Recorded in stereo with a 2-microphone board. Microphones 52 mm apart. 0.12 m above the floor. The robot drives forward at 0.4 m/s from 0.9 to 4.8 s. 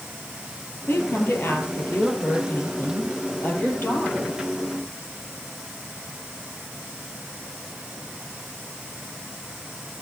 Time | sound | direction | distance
0.9 | a woman speaking | 50° left (ahead or behind) | 3.5 m